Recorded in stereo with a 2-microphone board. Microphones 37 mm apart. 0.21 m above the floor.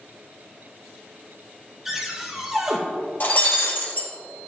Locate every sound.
1.9 s a cupboard door: 5° right (ahead or behind), 2 m
3.2 s breaking glass: 55° left (ahead or behind), 2.5 m